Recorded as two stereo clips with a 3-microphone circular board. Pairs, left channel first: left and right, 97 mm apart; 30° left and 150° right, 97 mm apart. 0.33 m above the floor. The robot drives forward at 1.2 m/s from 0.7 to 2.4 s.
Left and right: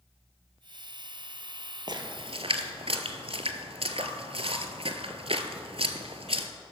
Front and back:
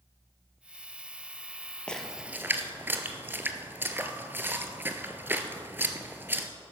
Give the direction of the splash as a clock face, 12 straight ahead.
2 o'clock.